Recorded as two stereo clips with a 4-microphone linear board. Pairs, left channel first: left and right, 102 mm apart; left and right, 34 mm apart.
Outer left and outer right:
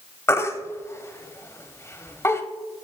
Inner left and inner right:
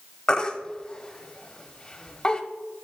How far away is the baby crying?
About 0.7 m.